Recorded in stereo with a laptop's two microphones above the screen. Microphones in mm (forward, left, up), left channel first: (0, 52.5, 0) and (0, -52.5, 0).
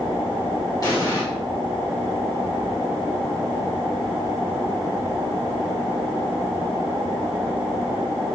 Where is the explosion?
35° left (ahead or behind), 1.1 m.